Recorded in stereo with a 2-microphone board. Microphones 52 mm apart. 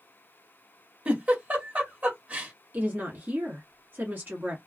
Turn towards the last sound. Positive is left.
turn(degrees=-35)  # may be behind; listen again after turning